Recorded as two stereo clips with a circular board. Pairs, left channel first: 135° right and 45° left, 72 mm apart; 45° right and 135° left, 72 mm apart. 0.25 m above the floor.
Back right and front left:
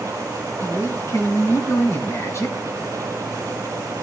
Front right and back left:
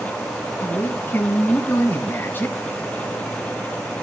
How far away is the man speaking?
About 1.9 m.